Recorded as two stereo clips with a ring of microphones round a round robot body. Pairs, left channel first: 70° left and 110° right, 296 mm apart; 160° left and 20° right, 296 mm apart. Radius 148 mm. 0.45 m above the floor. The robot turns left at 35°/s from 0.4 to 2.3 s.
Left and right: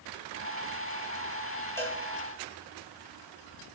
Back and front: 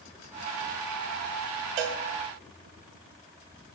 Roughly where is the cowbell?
Ahead.